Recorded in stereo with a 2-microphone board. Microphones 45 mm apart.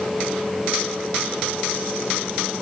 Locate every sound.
Only background noise.